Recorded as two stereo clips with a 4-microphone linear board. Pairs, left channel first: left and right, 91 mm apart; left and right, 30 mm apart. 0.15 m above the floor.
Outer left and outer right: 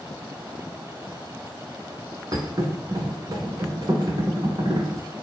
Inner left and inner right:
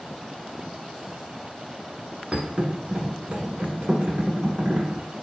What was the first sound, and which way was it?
A thud, 50° right (ahead or behind).